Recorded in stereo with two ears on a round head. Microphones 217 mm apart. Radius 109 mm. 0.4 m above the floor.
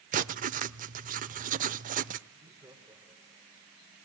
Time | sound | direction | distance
0.1 | writing | 35° right (ahead or behind) | 0.6 m
2.3 | laughter | 10° right (ahead or behind) | 1.5 m